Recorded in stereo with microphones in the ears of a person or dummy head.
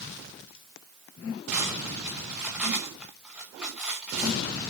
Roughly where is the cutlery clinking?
Centre.